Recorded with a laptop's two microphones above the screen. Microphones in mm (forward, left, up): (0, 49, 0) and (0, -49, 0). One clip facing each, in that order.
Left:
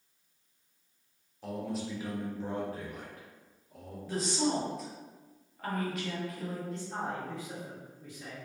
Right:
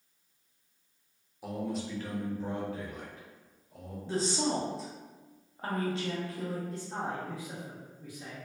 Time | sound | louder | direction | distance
1.4 | a man speaking | right 1 dB | 10° right (ahead or behind) | 0.7 m
4.1 | a woman speaking | even | 30° right (ahead or behind) | 0.6 m
6.7 | a man speaking | even | 10° right (ahead or behind) | 0.6 m